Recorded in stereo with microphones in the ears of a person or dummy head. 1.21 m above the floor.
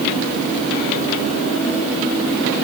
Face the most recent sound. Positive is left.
No sound to turn to.